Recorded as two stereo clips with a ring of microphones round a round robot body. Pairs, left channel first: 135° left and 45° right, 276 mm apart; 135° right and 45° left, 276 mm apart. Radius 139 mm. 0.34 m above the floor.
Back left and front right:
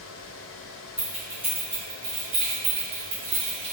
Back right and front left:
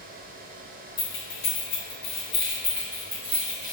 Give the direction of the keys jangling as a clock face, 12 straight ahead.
4 o'clock.